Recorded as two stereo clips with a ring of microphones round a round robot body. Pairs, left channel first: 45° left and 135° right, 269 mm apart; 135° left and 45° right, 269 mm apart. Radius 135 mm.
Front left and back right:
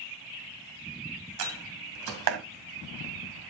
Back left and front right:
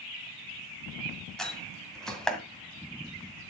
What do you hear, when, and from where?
1.4 s a door slam: 140° right, 1.9 m